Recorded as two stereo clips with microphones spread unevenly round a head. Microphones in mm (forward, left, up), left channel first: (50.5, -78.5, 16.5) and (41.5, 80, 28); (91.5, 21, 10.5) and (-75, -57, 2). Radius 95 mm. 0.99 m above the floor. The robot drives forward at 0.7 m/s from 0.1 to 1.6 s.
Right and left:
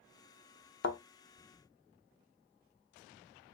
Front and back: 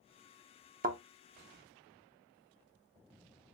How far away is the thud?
About 0.7 m.